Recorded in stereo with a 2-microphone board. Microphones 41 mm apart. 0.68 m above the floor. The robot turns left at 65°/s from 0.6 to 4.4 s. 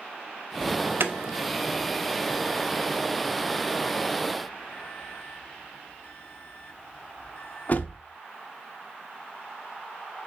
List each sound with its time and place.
0.6 s an alarm: 55° right (ahead or behind), 1.2 m; by 8.0 s 45° left (ahead or behind), 1.2 m